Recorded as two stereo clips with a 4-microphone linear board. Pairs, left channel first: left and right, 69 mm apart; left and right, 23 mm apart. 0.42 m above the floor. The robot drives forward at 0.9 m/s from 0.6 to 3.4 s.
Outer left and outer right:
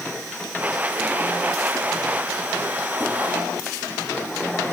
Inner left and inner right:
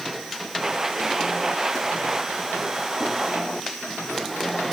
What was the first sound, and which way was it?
Only background noise.